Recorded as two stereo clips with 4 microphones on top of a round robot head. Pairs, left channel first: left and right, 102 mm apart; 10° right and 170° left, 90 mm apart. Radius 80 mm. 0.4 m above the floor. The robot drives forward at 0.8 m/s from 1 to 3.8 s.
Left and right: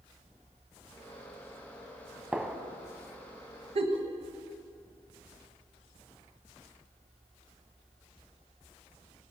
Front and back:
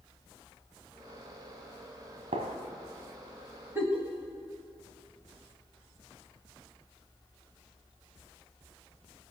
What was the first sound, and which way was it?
A gunshot, 170° right.